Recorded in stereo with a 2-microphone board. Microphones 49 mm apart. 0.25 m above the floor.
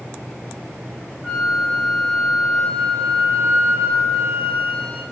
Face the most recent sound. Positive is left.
turn(degrees=-35)  # may be behind; listen again after turning